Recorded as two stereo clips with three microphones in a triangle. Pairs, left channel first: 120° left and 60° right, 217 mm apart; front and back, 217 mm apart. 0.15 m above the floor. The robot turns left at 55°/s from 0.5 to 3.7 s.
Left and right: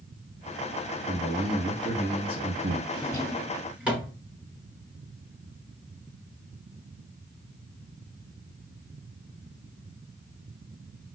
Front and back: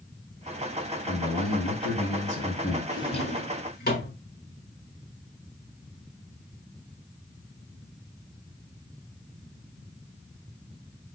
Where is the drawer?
65° left, 1.1 m; by 4.2 s 25° left, 1.1 m.